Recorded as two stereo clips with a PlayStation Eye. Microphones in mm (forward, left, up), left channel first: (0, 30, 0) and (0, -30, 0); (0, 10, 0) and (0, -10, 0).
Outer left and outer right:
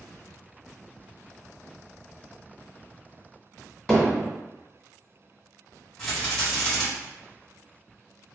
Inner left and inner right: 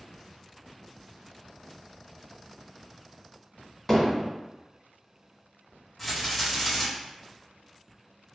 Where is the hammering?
10° left (ahead or behind), 1.7 m.